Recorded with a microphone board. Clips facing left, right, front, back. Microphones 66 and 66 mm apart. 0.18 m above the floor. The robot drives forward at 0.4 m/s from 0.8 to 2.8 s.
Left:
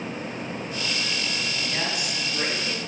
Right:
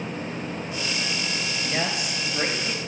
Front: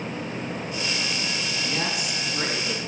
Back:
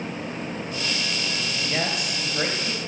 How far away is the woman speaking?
About 3 m.